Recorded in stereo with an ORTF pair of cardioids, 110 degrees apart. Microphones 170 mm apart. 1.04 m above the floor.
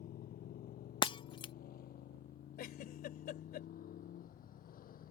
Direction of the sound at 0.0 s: 60° left.